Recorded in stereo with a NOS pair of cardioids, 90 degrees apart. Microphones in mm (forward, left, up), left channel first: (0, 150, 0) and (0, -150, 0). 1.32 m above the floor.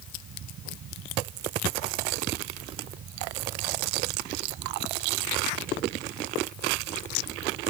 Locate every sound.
0.0 s a fan: 60° right